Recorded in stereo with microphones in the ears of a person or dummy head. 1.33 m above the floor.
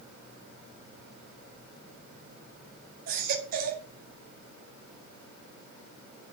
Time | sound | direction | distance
3.1 | a baby crying | 55° right (ahead or behind) | 1.9 m